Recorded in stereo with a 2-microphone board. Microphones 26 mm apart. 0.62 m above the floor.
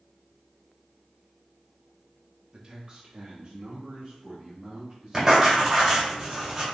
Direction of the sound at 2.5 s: 20° right (ahead or behind).